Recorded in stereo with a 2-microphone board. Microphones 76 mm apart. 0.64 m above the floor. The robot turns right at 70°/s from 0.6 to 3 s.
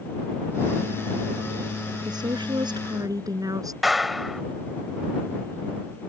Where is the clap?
Centre (ahead or behind).